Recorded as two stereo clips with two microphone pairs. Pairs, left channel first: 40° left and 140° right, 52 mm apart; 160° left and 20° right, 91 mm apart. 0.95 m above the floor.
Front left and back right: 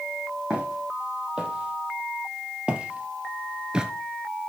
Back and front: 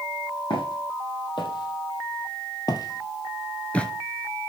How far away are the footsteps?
About 3 m.